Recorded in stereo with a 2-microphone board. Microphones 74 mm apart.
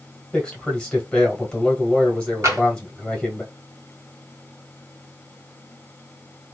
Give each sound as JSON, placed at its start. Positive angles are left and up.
{"t": 0.3, "sound": "a man speaking", "side_deg": 15, "distance_m": 1.3}
{"t": 2.4, "sound": "tapping", "side_deg": -40, "distance_m": 1.7}